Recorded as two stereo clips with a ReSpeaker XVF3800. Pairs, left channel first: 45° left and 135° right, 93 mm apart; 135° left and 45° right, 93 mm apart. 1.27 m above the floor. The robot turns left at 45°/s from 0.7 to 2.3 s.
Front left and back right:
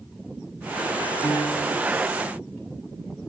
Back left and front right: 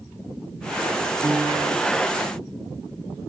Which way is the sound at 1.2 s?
10° left.